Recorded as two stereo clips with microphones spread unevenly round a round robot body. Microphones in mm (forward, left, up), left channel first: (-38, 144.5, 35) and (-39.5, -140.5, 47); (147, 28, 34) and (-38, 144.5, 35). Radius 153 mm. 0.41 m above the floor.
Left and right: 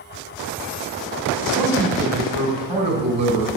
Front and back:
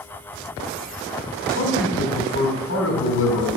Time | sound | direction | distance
1.5 | a man speaking | 20° right | 3.5 m